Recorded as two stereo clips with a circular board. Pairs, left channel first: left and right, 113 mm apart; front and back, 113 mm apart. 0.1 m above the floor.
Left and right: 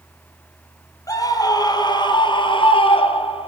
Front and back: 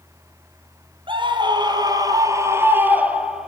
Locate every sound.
1.1 s a scream: 145° left, 2.5 m; by 3.5 s 95° left, 1.9 m